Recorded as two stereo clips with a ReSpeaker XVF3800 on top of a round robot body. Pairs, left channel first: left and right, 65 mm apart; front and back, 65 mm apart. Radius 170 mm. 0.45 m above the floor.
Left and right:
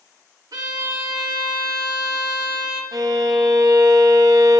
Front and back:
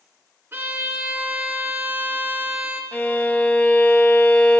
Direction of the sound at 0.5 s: 125° right.